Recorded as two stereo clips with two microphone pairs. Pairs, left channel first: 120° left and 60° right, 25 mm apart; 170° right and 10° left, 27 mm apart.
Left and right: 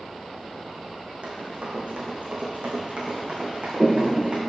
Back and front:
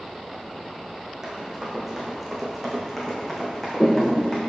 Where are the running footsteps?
60° right, 2 m; by 4.4 s 105° right, 2.5 m.